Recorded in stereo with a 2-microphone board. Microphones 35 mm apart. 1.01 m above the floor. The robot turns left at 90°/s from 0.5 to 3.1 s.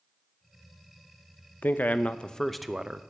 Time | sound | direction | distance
1.6 | a man speaking | 85° left | 0.6 m